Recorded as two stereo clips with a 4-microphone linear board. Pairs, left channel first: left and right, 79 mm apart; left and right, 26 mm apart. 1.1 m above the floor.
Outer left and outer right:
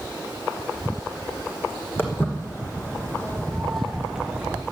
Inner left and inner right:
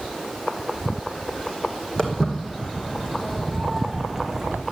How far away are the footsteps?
About 2.5 m.